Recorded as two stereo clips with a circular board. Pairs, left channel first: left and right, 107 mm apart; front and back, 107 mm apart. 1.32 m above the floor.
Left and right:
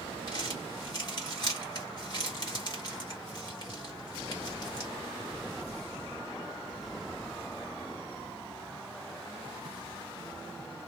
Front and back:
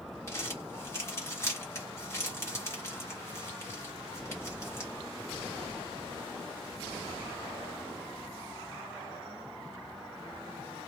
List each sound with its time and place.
0.3 s crumpling: 55° left, 1.3 m